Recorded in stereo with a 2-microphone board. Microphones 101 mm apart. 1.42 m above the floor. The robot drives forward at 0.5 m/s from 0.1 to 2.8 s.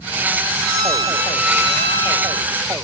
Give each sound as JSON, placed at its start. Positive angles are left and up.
{"t": 0.6, "sound": "a violin", "side_deg": -30, "distance_m": 7.5}